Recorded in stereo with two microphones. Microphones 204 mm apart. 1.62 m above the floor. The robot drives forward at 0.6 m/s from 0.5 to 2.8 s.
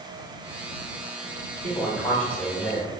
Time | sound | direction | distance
1.6 | a man speaking | 10° left (ahead or behind) | 1.0 m